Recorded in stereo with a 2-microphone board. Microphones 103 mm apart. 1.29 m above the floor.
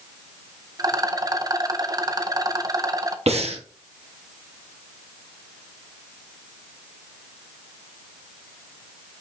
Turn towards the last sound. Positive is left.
turn(degrees=-70)  # may be behind; listen again after turning